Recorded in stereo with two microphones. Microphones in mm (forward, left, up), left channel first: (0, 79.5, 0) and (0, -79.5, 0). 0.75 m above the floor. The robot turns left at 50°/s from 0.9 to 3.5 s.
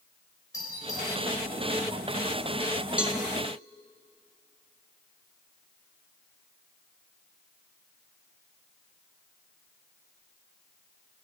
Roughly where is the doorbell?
Left.